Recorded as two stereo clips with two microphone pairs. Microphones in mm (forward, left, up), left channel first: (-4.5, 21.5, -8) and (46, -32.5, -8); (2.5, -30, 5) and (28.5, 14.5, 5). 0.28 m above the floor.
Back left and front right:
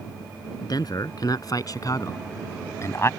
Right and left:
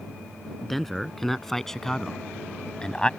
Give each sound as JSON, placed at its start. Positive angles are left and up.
{"t": 0.6, "sound": "a man speaking", "azimuth_deg": 155}